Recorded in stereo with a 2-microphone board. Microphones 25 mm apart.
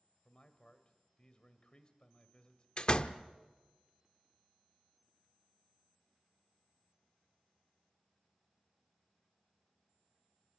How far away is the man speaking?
About 1.7 m.